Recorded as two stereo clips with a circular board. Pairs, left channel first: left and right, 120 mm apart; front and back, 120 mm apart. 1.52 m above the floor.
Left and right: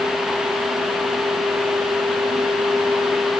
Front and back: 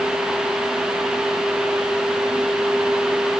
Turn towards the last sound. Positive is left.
No sound to turn to.